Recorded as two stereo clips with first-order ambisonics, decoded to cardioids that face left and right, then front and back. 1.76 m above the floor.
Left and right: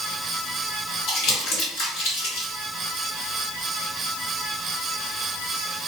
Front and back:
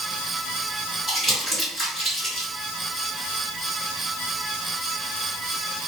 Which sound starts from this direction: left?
Crumpling, at 1.1 s.